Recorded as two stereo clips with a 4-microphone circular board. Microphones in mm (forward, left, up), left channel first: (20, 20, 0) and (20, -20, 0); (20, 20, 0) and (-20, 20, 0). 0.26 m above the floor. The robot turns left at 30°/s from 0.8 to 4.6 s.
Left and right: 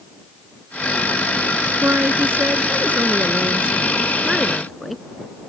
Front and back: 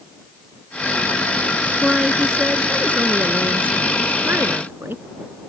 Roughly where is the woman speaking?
Right.